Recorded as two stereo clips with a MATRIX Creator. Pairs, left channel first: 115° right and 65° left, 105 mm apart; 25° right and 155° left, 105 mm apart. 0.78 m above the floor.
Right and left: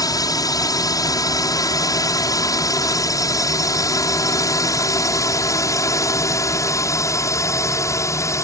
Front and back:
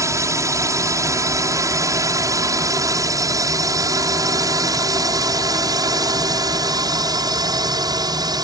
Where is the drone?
150° right; by 8.4 s 165° right.